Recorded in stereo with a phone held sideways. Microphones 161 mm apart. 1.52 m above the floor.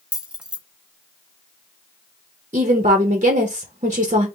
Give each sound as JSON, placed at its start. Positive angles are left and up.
{"t": 0.1, "sound": "keys jangling", "side_deg": -5, "distance_m": 0.6}
{"t": 2.5, "sound": "a woman speaking", "side_deg": -50, "distance_m": 0.7}